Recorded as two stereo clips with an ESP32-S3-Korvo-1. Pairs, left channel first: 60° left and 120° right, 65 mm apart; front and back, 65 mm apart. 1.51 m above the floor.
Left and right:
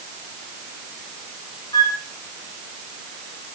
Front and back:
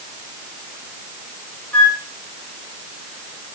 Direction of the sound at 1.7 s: 65° left.